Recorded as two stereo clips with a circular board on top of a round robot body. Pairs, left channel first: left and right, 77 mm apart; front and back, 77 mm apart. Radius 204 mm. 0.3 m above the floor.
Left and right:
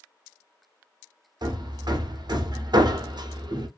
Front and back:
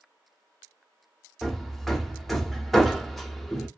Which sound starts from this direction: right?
Hammering, at 1.4 s.